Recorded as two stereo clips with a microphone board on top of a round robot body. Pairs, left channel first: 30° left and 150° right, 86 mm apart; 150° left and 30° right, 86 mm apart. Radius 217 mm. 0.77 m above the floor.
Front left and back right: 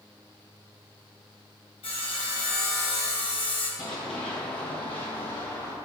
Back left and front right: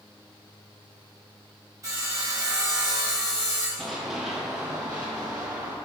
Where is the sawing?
25° left, 1.4 m.